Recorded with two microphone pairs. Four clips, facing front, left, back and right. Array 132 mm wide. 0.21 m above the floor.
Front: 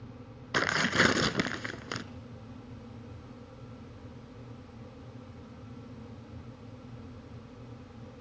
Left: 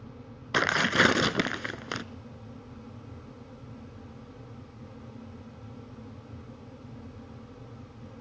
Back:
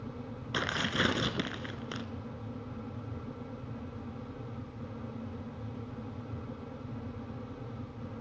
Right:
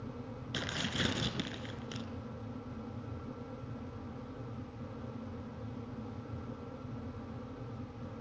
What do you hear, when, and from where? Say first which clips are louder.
0.5 s tearing paper: left 14 dB, front 5 dB; 80° left, 0.7 m